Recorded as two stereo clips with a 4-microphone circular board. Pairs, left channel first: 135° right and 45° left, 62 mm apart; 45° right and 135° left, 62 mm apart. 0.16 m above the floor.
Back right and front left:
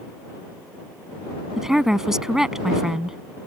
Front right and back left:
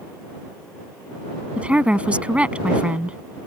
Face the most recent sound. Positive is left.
turn(degrees=110)